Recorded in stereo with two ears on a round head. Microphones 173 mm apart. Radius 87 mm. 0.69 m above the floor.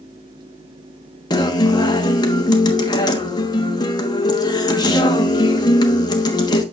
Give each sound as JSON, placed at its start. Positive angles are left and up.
{"t": 1.3, "sound": "a guitar", "side_deg": 20, "distance_m": 1.2}